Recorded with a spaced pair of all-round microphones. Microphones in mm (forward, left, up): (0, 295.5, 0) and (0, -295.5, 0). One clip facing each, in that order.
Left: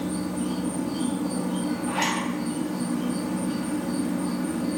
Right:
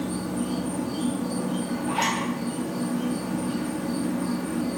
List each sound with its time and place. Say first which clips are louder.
0.0 s an insect: even; 40° right (ahead or behind), 0.8 m
1.9 s a zipper: even; 5° left (ahead or behind), 0.8 m